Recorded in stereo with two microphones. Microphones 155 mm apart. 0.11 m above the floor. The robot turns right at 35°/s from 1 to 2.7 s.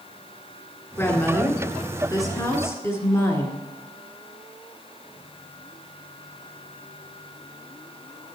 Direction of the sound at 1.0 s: 15° left (ahead or behind).